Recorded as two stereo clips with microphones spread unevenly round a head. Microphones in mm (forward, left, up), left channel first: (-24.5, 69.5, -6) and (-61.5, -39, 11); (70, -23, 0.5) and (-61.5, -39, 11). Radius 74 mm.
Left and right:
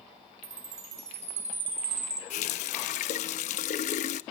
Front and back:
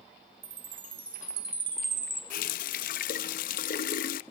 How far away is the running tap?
About 0.5 m.